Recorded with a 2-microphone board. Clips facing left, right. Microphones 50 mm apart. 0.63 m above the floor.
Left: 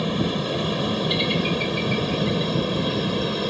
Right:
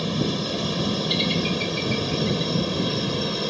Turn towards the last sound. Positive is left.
turn(degrees=5)  # may be behind; listen again after turning